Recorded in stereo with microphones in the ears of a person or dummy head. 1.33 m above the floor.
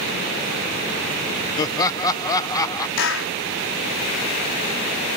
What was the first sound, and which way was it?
Laughter, 25° left (ahead or behind).